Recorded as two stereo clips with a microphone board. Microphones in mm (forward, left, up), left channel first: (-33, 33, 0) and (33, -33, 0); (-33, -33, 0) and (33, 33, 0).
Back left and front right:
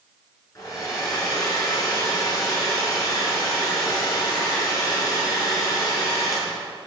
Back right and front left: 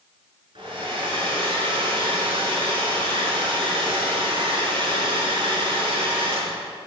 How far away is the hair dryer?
About 6.5 m.